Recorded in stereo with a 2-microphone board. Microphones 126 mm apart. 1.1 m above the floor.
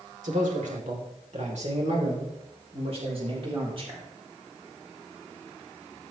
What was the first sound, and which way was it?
A man speaking, 85° right.